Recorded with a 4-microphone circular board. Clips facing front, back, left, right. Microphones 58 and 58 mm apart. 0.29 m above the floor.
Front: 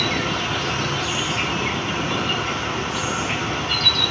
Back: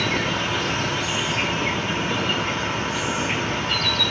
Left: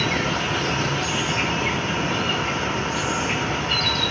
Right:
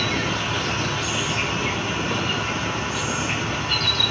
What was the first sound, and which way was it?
An insect, 120° left.